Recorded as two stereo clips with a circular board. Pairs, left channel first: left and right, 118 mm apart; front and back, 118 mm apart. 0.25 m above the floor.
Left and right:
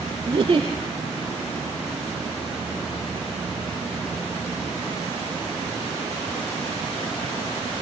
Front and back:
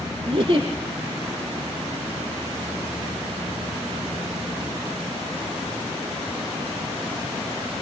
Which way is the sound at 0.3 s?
135° right.